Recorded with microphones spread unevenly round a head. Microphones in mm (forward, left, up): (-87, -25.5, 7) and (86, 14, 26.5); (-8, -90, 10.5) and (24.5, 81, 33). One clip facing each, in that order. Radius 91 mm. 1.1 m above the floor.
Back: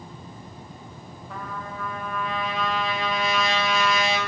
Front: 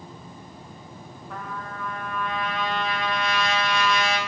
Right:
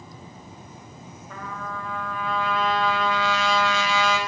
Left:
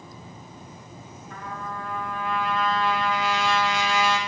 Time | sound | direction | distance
1.3 | a trumpet | 75° right | 0.9 m